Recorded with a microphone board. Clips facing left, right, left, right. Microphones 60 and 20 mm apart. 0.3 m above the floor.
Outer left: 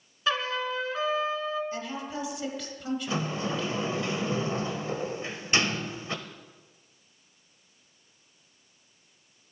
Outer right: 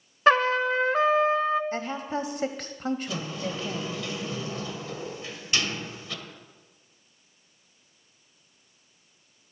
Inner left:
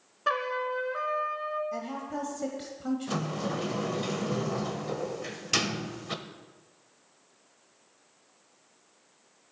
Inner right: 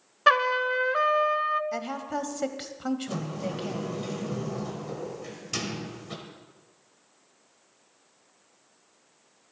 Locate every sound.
0.3 s a trumpet: 45° right (ahead or behind), 0.6 m
1.7 s a woman speaking: 45° right (ahead or behind), 1.2 m
3.1 s a sliding door: 30° left (ahead or behind), 1.1 m